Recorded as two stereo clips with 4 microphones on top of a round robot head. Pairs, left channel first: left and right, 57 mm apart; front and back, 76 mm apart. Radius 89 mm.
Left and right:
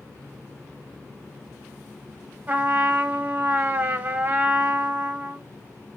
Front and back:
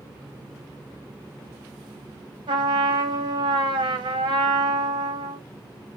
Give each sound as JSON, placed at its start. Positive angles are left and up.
{"t": 2.5, "sound": "a trumpet", "azimuth_deg": -145, "distance_m": 0.8}